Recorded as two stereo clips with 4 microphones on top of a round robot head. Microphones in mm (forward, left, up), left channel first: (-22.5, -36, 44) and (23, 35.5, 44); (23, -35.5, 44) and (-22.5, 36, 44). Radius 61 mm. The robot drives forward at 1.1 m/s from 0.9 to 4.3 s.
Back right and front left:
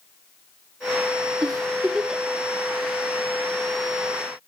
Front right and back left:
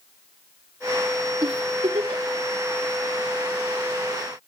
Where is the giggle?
90° left, 0.7 m; by 2.2 s 150° left, 1.2 m.